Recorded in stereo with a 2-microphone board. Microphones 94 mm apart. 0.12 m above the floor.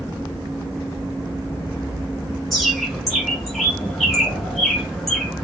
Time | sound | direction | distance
2.5 | a bird | centre (ahead or behind) | 1.7 m